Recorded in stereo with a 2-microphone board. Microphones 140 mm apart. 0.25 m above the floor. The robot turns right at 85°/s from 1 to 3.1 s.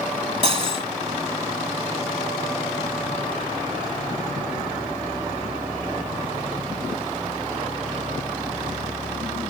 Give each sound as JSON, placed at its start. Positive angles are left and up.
{"t": 0.4, "sound": "cutlery clinking", "side_deg": -40}